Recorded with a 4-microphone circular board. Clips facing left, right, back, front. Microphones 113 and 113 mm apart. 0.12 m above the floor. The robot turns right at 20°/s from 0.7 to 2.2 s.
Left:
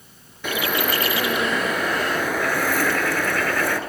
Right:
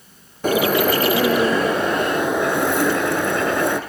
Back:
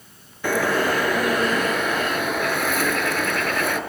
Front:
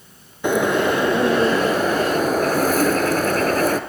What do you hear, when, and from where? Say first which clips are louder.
0.4 s a bird: right 7 dB, front 3 dB; 60° right, 1.0 m; by 3.8 s 30° right, 1.0 m